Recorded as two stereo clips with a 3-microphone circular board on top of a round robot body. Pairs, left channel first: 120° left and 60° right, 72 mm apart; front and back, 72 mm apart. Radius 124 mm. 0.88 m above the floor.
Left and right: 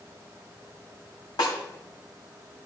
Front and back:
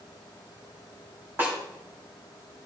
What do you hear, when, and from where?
1.4 s a snare drum: 120° left, 3 m